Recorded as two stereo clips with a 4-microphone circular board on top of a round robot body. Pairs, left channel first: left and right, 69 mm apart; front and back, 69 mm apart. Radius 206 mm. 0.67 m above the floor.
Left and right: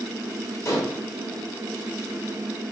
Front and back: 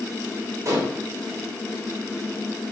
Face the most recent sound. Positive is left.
turn(degrees=135)